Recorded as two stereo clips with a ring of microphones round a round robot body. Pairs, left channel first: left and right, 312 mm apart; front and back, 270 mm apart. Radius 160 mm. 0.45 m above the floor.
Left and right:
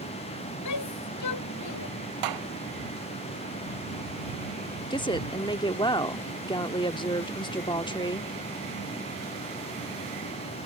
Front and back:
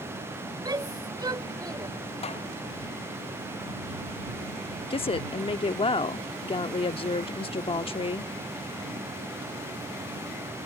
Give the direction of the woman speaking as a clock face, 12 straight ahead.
11 o'clock.